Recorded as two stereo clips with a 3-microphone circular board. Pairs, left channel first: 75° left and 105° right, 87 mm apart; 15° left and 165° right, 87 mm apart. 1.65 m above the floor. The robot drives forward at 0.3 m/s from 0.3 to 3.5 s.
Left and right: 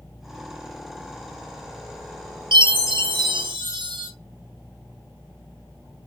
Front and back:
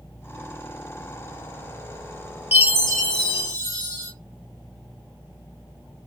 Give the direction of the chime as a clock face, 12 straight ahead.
3 o'clock.